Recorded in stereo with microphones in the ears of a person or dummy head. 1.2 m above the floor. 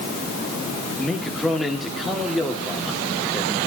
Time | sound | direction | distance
1.0 | a man speaking | 5° left (ahead or behind) | 2.5 m